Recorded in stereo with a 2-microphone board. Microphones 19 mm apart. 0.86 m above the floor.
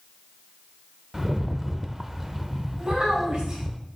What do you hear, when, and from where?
1.1 s a rattle: 10° right (ahead or behind), 0.7 m
2.8 s a child speaking: 50° right (ahead or behind), 4.5 m